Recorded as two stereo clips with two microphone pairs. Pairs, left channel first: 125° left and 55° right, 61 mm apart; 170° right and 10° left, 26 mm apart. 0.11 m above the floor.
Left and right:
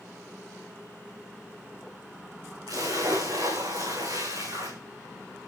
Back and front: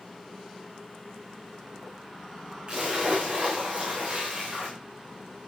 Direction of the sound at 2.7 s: 45° right.